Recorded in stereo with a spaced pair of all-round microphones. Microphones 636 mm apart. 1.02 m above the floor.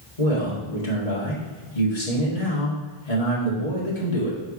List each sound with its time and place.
0.2 s a man speaking: 80° left, 2 m